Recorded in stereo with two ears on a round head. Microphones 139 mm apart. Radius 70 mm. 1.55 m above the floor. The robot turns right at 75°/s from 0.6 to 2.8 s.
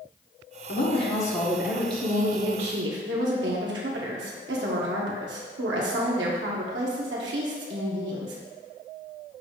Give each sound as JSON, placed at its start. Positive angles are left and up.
{"t": 0.7, "sound": "a woman speaking", "azimuth_deg": 120, "distance_m": 1.7}